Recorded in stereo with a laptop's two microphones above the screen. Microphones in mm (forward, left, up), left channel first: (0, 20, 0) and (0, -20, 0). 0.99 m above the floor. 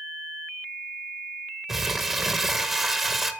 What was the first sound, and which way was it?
Crumpling, 5° right (ahead or behind).